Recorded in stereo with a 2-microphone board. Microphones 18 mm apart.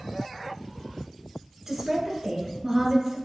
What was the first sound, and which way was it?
A woman speaking, 20° right (ahead or behind).